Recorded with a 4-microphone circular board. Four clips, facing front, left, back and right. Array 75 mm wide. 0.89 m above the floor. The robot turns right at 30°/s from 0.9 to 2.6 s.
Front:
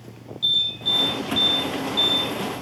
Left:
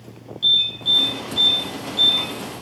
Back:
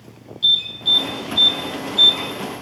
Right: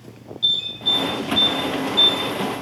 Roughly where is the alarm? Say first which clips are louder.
Left 2 dB, back 4 dB; left.